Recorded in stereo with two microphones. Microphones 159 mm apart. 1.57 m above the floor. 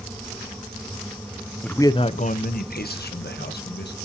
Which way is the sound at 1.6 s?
5° left (ahead or behind).